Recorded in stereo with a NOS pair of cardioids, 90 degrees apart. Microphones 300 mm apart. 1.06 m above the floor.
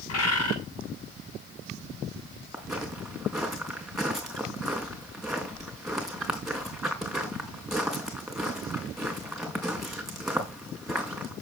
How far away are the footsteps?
About 5 m.